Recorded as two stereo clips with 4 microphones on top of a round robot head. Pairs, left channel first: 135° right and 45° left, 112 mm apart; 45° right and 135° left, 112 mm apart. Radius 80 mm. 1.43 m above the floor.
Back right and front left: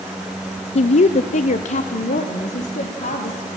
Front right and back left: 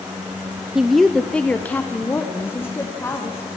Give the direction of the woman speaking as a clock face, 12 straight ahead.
5 o'clock.